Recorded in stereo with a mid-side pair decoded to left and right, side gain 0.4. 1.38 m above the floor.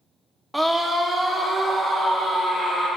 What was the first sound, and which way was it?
A scream, 5° right.